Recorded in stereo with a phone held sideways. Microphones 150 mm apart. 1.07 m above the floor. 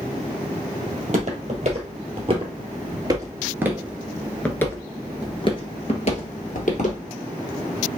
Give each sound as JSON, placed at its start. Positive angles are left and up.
{"t": 0.9, "sound": "footsteps", "side_deg": -50, "distance_m": 2.0}